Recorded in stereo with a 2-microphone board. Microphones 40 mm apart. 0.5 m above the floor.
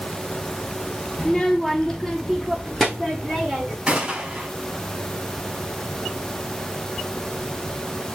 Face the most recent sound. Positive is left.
turn(degrees=-25)  # may be behind; listen again after turning